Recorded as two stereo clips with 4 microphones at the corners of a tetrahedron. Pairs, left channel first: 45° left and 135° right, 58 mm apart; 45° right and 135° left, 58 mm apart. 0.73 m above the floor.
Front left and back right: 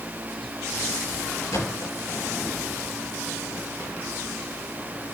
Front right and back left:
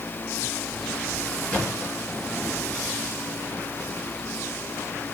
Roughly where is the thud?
Ahead left.